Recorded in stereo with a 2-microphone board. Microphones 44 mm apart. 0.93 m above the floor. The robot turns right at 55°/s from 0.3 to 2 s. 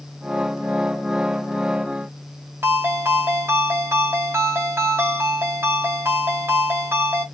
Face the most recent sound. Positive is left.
turn(degrees=-65)  # may be behind; listen again after turning